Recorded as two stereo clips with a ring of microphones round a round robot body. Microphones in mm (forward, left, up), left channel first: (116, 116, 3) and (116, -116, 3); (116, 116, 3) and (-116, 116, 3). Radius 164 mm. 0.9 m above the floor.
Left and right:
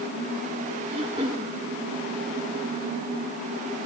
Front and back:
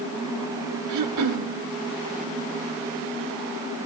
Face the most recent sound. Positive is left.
turn(degrees=-165)